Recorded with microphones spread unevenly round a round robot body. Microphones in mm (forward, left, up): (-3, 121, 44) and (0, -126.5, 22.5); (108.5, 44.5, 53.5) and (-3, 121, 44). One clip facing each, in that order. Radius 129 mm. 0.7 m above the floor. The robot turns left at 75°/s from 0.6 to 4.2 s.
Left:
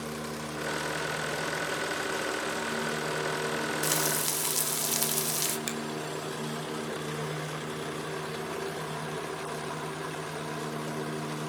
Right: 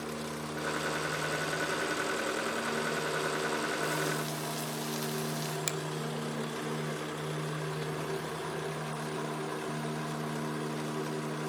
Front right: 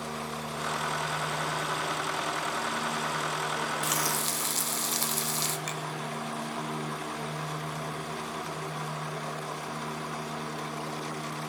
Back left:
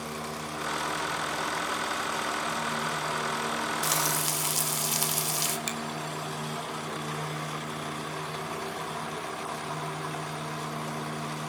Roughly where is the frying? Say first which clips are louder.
Left 1 dB, back left 1 dB; left.